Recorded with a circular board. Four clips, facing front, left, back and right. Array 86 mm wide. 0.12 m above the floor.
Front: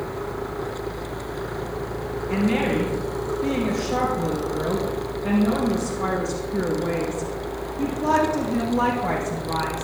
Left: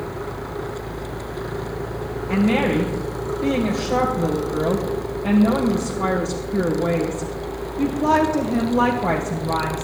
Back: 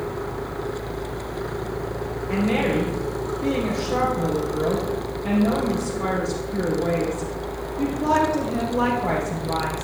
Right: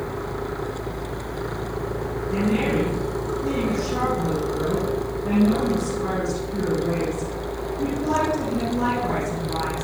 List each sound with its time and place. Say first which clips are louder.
2.3 s a woman speaking: left 4 dB, even; 100° left, 3 m